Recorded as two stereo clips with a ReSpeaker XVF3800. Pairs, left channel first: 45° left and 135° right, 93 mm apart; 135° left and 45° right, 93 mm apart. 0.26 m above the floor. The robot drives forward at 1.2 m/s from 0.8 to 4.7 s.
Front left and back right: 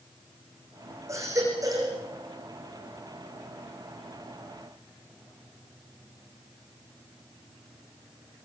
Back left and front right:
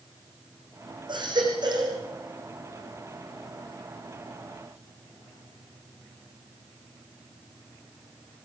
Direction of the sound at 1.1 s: 80° right.